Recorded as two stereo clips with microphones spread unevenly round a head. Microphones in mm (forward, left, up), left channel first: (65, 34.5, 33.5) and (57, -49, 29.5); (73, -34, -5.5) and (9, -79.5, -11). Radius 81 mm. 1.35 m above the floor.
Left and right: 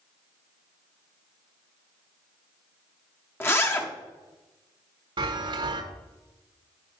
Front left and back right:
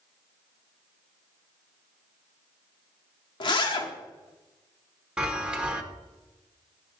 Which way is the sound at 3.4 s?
20° left.